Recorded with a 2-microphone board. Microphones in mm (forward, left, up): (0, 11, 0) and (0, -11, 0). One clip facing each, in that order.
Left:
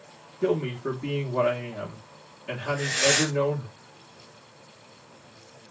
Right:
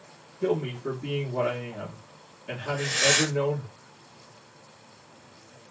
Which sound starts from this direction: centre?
Breathing, at 2.7 s.